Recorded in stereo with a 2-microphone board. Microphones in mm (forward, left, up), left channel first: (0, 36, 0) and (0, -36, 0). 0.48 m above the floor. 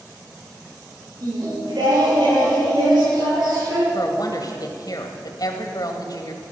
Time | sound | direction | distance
1.2 | singing | 75° right (ahead or behind) | 6.5 m
3.9 | a woman speaking | 60° left (ahead or behind) | 2.0 m